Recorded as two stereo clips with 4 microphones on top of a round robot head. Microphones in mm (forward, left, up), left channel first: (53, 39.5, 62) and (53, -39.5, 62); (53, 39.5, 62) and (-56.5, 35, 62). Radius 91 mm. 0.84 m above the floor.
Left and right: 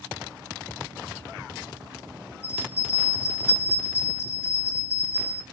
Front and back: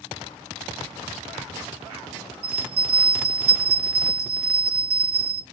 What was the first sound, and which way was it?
A bell, 155° left.